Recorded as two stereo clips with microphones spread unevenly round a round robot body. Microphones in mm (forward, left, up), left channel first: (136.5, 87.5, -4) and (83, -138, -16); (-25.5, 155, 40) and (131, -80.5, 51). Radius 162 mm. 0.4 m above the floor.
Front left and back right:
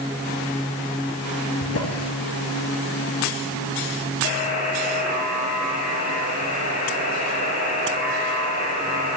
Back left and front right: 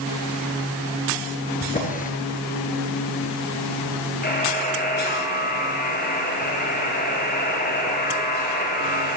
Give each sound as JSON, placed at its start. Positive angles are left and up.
{"t": 1.6, "sound": "a drawer", "azimuth_deg": 60, "distance_m": 3.0}
{"t": 4.2, "sound": "a buzzer", "azimuth_deg": 65, "distance_m": 9.0}